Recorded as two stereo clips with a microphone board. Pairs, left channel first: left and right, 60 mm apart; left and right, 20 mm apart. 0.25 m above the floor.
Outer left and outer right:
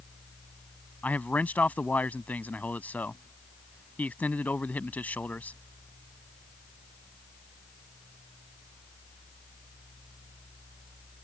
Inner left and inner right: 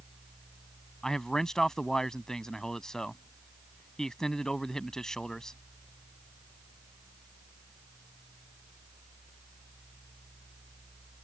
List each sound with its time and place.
1.0 s a man speaking: 25° left (ahead or behind)